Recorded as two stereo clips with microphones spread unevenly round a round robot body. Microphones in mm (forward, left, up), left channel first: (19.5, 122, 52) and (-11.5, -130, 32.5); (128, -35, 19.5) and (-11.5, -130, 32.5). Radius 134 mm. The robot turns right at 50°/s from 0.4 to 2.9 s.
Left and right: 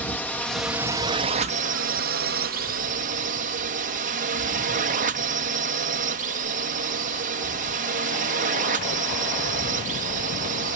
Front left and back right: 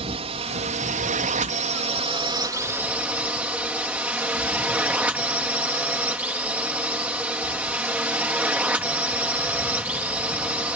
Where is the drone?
170° left; by 10.8 s 65° right.